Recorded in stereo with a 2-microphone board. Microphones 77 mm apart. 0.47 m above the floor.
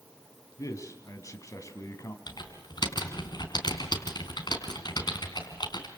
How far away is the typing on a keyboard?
About 4 m.